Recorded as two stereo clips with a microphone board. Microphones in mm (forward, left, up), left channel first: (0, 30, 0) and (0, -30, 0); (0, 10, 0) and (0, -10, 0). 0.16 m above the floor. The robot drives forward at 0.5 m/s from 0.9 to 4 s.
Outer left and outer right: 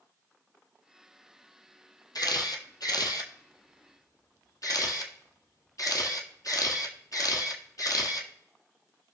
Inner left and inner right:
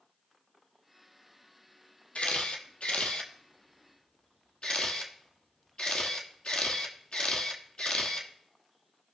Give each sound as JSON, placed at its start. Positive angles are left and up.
{"t": 2.1, "sound": "a camera shutter", "side_deg": 75, "distance_m": 1.4}